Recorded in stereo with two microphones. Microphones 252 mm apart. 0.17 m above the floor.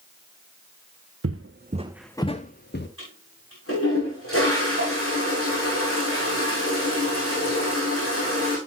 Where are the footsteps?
65° right (ahead or behind), 1.0 m; by 2.9 s 45° left (ahead or behind), 1.4 m.